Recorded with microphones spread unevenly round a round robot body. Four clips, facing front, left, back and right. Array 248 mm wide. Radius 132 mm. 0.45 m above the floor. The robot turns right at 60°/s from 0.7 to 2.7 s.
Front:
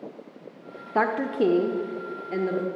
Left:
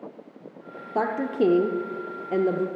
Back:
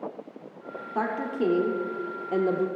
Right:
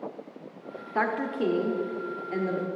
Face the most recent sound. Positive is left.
turn(degrees=135)